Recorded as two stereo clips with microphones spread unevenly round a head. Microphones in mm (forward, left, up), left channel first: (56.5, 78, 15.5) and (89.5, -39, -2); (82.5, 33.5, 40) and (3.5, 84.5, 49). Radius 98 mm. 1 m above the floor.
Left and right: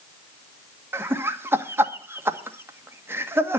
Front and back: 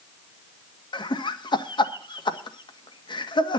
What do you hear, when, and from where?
0.9 s laughter: 5° right, 1.9 m